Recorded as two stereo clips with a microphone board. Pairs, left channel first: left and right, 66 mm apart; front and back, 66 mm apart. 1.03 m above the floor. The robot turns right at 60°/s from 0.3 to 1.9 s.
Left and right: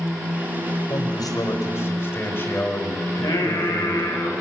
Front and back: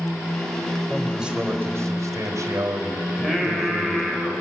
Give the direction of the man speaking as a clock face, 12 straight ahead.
9 o'clock.